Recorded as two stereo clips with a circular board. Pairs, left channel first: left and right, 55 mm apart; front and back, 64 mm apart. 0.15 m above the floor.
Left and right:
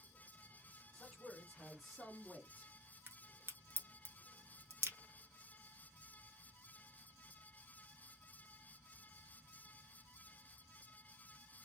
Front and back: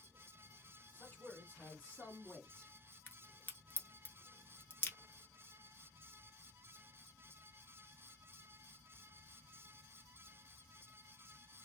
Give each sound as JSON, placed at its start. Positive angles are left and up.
{"t": 0.9, "sound": "a man speaking", "azimuth_deg": 20, "distance_m": 1.9}
{"t": 3.1, "sound": "a crack", "azimuth_deg": -55, "distance_m": 0.7}